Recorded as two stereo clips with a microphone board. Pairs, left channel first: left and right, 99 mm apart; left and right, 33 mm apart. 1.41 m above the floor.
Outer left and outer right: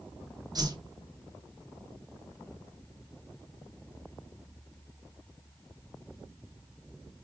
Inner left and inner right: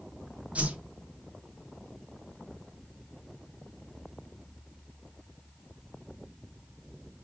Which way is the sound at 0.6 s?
45° right (ahead or behind).